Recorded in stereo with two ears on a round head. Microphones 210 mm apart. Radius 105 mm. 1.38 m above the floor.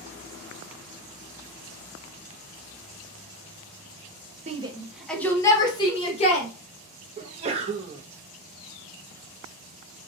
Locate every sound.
4.5 s a shout: 30° right (ahead or behind), 0.5 m; by 6.5 s 30° left (ahead or behind), 1.3 m
7.2 s a sneeze: 25° right (ahead or behind), 0.6 m